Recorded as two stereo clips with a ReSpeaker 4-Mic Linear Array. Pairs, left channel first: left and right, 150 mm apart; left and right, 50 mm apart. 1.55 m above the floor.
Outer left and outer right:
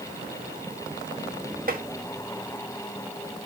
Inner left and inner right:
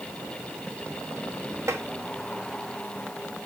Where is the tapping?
70° right (ahead or behind), 1.8 m.